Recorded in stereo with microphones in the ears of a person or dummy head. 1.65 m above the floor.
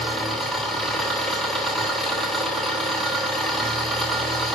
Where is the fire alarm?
No fire alarm in this recording.